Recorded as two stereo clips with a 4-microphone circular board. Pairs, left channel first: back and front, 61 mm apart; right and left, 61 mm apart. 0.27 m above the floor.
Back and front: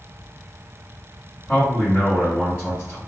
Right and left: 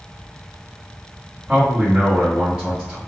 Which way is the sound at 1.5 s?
155° left.